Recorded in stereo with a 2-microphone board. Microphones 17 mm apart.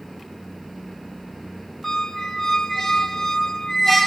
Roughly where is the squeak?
Centre.